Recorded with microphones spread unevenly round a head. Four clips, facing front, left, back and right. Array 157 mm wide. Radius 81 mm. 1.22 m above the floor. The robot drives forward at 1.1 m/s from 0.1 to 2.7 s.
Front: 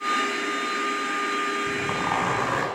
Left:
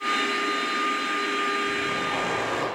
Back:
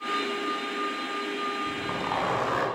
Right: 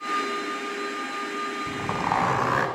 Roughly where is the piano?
No piano in this recording.